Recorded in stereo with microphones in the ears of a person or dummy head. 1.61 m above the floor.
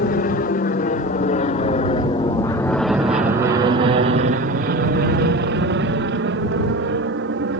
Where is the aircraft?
50° left (ahead or behind); by 7.6 s 65° right (ahead or behind).